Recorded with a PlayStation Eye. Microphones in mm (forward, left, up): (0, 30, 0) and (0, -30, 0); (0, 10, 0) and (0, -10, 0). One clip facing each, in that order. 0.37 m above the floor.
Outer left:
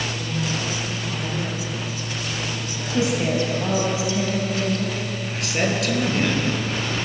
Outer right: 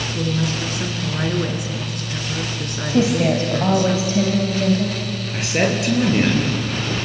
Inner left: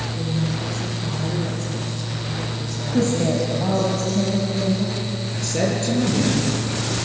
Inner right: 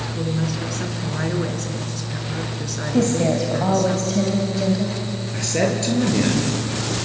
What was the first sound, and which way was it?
A woman speaking, 60° right (ahead or behind).